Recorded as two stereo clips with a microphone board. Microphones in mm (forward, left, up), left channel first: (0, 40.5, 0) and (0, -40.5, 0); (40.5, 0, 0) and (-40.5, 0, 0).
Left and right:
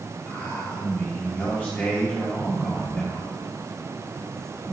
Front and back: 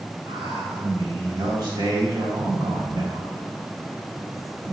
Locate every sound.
0.3 s a man speaking: 160° left, 3 m